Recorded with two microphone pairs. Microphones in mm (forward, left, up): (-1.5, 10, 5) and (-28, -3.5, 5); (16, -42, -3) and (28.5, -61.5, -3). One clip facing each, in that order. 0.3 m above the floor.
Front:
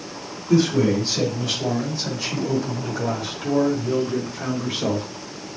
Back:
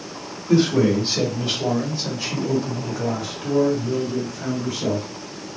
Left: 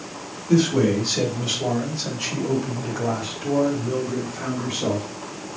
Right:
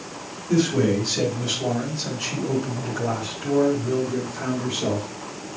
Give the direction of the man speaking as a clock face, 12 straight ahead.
6 o'clock.